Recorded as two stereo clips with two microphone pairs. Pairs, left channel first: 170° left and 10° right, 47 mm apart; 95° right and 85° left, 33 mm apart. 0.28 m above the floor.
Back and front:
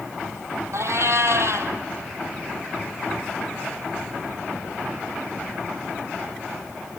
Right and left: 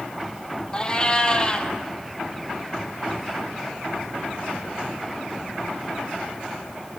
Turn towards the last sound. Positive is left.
turn(degrees=-35)